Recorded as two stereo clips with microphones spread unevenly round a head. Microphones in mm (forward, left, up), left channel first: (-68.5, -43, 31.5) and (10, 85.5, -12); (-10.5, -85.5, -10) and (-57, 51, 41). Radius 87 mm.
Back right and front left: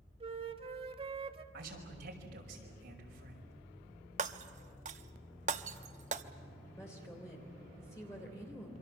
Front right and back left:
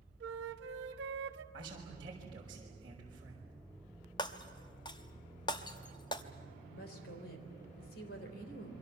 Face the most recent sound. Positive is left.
turn(degrees=-45)